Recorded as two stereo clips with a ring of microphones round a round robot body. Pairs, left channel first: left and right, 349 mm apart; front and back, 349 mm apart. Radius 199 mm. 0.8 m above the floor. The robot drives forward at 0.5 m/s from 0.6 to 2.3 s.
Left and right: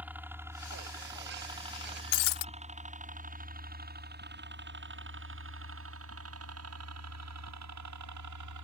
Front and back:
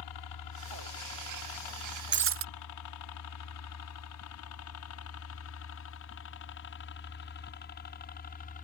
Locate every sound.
0.0 s a helicopter: 5° right; by 8.6 s 65° right
2.1 s breaking glass: 120° left; by 2.5 s 125° left